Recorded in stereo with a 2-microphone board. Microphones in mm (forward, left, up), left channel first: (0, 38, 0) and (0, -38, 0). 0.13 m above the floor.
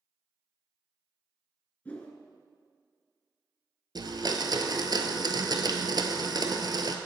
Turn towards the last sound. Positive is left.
turn(degrees=-60)  # may be behind; listen again after turning